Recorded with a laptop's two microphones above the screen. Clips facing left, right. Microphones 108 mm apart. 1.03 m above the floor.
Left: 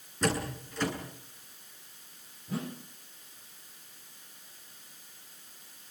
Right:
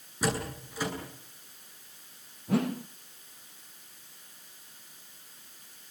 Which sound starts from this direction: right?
A whoosh, at 2.5 s.